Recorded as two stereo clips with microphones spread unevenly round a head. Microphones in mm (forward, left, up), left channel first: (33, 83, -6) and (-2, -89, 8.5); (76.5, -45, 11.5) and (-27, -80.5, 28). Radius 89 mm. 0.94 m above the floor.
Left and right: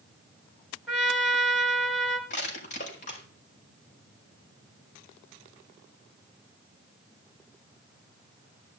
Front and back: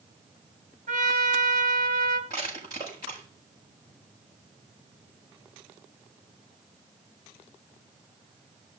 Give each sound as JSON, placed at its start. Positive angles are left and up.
{"t": 0.9, "sound": "a trumpet", "azimuth_deg": 170, "distance_m": 4.0}
{"t": 2.3, "sound": "crushing", "azimuth_deg": 130, "distance_m": 7.0}